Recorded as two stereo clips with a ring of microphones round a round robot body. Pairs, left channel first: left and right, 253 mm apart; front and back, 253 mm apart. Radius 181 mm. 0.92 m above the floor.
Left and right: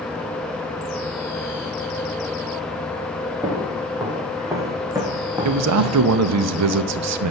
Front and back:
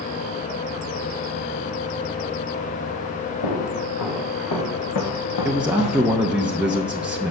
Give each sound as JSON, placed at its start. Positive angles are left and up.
{"t": 3.4, "sound": "footsteps", "azimuth_deg": -10, "distance_m": 4.5}
{"t": 5.5, "sound": "a man speaking", "azimuth_deg": -95, "distance_m": 0.8}